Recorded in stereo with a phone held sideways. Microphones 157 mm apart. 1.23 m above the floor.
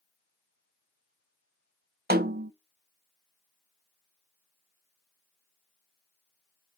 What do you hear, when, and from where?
2.1 s a snare drum: 85° right, 0.6 m